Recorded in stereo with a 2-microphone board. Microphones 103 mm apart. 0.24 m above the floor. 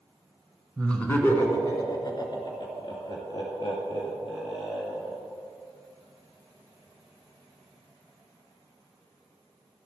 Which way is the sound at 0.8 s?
10° left (ahead or behind).